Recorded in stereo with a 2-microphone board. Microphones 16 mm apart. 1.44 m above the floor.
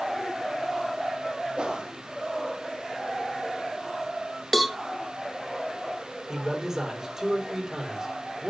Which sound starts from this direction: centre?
A cowbell, at 4.5 s.